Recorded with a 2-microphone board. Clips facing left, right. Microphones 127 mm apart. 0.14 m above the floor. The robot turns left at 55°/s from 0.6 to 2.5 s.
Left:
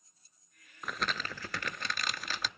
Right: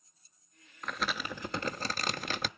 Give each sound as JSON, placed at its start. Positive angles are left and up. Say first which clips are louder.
{"t": 0.8, "sound": "crumpling", "louder": "right 1 dB", "azimuth_deg": 10, "distance_m": 0.6}